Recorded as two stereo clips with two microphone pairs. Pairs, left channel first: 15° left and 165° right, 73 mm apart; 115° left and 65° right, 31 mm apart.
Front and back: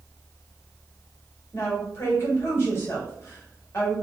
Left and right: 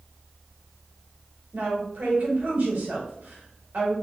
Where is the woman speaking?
35° right, 1.7 m.